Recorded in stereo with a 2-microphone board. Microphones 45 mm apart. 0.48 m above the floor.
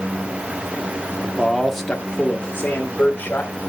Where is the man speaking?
10° right (ahead or behind), 0.9 m; by 3.5 s 35° left (ahead or behind), 1.6 m.